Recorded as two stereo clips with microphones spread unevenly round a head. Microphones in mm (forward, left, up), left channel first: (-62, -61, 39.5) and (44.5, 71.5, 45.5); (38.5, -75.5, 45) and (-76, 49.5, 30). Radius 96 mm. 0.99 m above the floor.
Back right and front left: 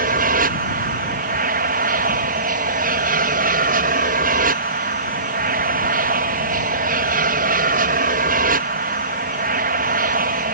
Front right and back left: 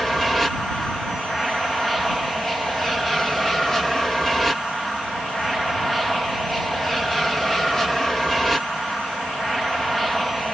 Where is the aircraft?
45° left.